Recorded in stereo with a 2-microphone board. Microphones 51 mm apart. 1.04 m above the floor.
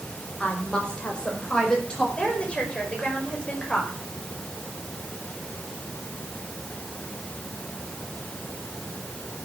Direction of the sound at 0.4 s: 25° left (ahead or behind).